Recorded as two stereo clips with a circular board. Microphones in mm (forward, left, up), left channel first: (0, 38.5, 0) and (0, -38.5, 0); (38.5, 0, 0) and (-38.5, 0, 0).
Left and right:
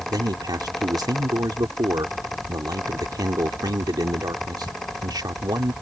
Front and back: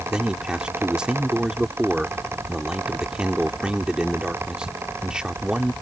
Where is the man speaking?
105° right.